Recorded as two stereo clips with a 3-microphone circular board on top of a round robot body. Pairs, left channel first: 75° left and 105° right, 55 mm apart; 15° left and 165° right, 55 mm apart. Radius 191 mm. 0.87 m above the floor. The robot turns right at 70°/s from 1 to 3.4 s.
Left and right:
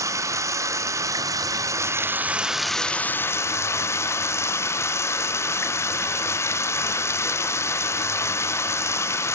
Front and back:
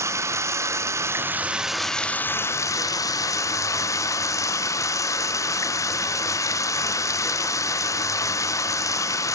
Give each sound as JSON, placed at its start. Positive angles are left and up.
{"t": 0.0, "sound": "running water", "azimuth_deg": -130, "distance_m": 1.4}